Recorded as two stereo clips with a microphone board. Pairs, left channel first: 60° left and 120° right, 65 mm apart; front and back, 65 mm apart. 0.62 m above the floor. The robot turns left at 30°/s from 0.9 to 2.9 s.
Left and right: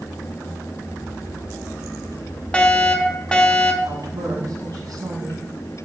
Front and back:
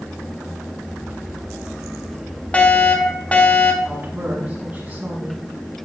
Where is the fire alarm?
20° left, 1.7 m; by 3.8 s 10° left, 1.7 m.